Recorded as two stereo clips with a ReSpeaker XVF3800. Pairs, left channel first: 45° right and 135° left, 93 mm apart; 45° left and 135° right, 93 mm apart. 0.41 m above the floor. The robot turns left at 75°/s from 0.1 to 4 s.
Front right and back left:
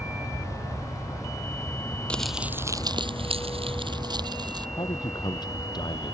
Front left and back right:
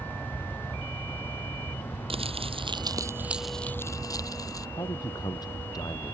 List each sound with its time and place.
0.0 s an aircraft: 165° left; by 6.1 s 130° right
2.1 s crumpling: 120° right; by 4.7 s 95° left
4.8 s a man speaking: straight ahead